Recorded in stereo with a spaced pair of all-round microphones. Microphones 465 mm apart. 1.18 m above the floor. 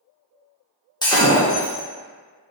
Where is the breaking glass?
10° left (ahead or behind), 0.8 m.